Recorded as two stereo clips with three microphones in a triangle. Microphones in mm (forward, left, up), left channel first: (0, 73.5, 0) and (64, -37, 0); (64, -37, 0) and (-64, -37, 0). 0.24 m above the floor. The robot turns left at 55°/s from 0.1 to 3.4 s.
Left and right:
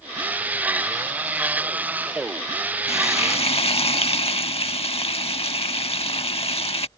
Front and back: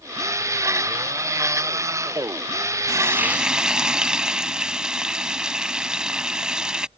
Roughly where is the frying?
Behind left.